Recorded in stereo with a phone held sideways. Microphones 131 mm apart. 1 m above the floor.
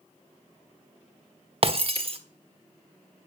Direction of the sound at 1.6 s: 50° right (ahead or behind).